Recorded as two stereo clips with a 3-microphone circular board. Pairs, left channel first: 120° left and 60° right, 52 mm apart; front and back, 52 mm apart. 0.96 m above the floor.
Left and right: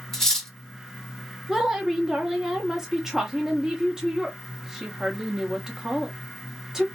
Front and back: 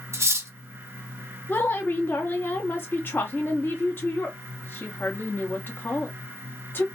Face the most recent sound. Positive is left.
turn(degrees=20)